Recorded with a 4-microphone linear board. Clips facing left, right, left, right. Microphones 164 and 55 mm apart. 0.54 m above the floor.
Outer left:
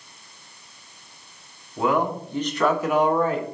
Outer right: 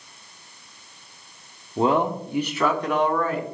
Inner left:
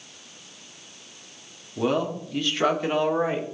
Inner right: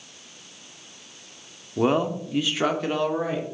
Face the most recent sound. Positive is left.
turn(degrees=25)  # may be behind; listen again after turning